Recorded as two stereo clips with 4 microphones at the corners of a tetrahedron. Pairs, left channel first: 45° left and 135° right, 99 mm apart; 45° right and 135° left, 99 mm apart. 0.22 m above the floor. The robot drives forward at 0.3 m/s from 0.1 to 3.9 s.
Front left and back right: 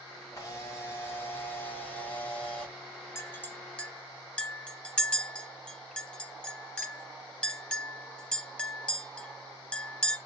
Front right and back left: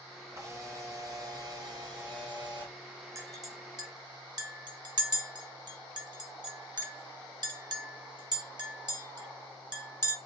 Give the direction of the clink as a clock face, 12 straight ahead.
9 o'clock.